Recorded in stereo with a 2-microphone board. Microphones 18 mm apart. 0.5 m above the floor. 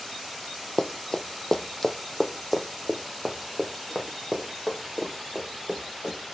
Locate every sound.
0.8 s running footsteps: 45° left (ahead or behind), 0.7 m; by 6.2 s 10° right (ahead or behind), 3 m